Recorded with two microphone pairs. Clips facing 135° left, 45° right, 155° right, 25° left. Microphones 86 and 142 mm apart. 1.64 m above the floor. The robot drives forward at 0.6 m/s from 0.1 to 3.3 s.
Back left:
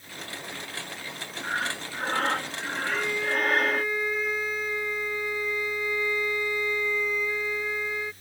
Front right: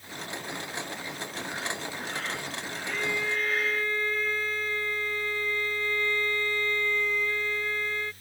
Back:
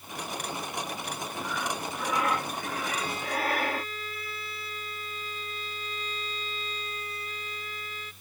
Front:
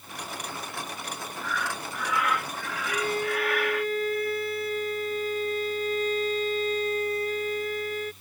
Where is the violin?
55° left; by 8.1 s 60° left.